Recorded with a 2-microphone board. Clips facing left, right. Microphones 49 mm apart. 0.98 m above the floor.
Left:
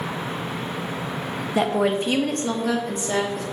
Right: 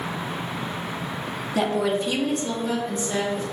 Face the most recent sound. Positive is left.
turn(degrees=75)  # may be behind; listen again after turning